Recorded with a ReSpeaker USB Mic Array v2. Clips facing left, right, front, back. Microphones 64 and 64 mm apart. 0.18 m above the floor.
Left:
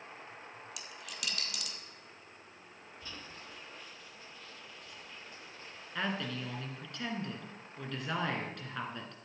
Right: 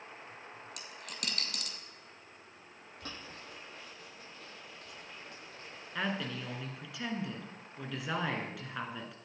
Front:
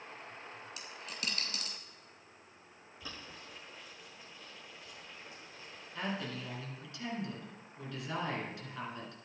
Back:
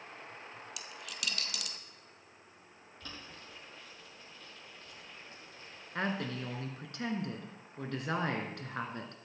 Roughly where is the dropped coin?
Ahead right.